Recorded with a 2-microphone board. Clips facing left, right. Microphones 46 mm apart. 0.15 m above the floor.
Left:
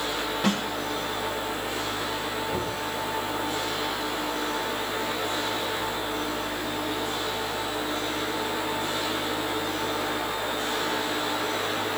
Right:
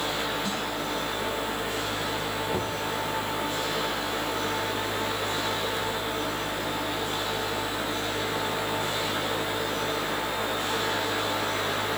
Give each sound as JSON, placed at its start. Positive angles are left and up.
{"t": 0.4, "sound": "a snare drum", "side_deg": 75, "distance_m": 5.5}
{"t": 2.5, "sound": "knocking", "side_deg": -15, "distance_m": 3.0}